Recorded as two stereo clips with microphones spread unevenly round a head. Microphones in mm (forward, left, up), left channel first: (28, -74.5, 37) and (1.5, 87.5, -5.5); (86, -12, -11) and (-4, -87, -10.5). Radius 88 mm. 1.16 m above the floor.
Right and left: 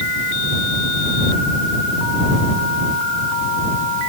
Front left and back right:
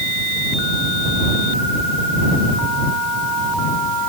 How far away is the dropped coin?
I don't hear a dropped coin.